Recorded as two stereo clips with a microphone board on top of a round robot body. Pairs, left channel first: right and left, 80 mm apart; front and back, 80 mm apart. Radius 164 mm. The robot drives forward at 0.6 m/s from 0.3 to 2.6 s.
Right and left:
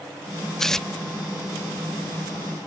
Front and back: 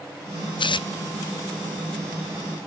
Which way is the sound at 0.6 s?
5° right.